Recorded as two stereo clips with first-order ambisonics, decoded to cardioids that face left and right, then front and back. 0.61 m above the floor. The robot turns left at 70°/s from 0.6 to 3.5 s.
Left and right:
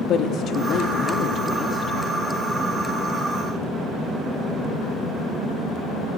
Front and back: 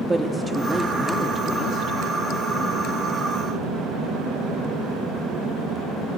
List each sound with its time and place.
0.1 s a woman speaking: 105° left, 0.7 m; by 2.0 s 5° left, 0.7 m